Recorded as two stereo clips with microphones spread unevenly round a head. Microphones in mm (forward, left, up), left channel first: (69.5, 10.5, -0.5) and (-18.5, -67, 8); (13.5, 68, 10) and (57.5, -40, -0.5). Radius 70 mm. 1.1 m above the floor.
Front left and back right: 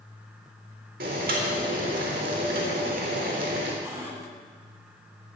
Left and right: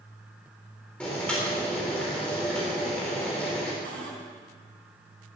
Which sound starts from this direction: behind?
Boiling, at 1.0 s.